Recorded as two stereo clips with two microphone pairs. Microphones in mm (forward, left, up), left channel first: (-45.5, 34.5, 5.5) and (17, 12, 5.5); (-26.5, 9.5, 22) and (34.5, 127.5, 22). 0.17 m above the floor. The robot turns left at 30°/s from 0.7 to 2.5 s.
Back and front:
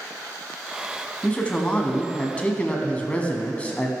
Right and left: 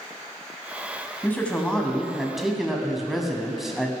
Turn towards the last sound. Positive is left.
turn(degrees=140)